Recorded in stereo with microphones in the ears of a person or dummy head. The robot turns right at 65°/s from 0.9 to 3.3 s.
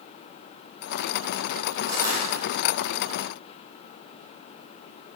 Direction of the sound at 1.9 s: 30° right (ahead or behind).